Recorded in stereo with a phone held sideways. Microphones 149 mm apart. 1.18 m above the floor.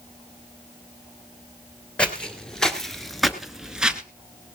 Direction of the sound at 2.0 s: 5° left (ahead or behind).